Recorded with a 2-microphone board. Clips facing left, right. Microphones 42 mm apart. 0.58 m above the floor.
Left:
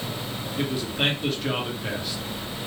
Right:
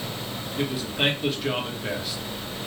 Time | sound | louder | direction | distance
0.6 | a man speaking | even | centre (ahead or behind) | 1.3 m